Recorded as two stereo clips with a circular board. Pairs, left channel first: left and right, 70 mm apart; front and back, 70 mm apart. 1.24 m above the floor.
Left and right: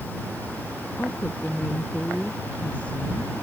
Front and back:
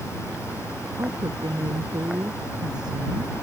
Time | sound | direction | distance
1.0 | a woman speaking | 165° left | ?